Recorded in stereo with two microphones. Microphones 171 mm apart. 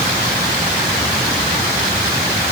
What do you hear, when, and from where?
Only background noise.